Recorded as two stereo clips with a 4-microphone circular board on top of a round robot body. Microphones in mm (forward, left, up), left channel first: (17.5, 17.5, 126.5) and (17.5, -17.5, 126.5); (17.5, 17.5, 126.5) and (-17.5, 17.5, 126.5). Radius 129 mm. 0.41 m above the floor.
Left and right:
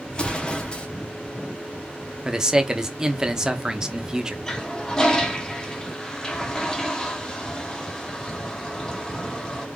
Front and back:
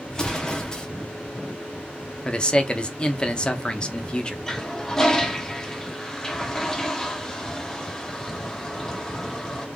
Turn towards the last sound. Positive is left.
turn(degrees=50)